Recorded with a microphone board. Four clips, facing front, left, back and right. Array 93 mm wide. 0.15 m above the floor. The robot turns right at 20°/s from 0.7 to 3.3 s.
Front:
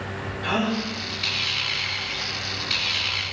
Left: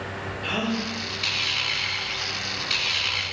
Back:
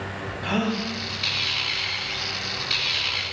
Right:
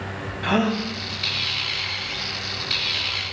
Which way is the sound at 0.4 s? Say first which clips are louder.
Right 6 dB, front 1 dB; 90° right.